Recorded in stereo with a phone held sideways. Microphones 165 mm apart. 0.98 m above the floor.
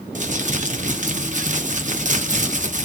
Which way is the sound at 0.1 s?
50° right (ahead or behind).